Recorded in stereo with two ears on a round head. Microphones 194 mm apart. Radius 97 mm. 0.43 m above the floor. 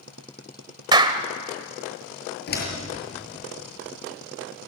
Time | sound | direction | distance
0.9 | a clap | 20° right (ahead or behind) | 1.4 m
2.5 | a door slam | 45° left (ahead or behind) | 6.5 m